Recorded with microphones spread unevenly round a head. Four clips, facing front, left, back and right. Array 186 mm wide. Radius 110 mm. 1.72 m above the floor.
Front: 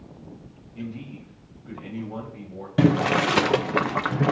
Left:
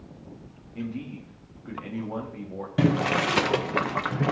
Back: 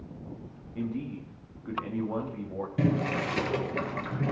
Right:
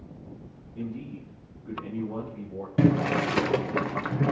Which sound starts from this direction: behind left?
A man speaking, at 0.8 s.